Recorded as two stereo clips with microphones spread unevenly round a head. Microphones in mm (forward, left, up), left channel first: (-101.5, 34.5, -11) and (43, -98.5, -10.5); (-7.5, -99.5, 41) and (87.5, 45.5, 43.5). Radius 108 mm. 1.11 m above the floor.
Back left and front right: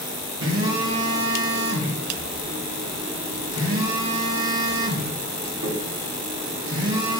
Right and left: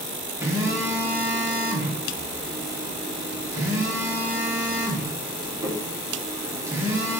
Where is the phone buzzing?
15° right, 1.3 m.